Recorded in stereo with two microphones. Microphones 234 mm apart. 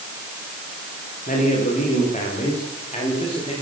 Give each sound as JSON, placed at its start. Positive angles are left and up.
{"t": 1.3, "sound": "a man speaking", "side_deg": 35, "distance_m": 10.0}